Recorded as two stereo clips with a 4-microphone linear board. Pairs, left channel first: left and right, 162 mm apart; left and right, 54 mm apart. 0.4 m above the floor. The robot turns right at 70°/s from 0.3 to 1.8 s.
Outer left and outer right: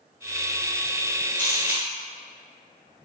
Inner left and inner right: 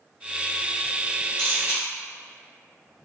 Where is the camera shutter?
10° left (ahead or behind), 1.7 m; by 1.8 s 35° left (ahead or behind), 1.7 m.